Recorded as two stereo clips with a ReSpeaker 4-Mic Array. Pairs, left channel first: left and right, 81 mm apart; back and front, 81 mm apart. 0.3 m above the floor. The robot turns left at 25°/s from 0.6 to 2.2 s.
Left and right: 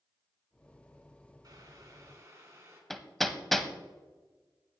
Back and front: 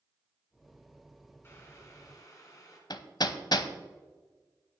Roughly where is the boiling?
Behind right.